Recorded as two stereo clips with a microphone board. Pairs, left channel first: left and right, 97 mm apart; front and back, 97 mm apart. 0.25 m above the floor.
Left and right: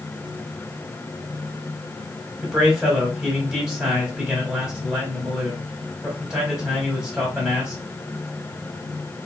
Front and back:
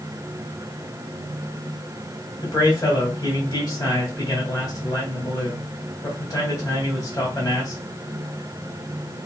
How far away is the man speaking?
About 1.4 m.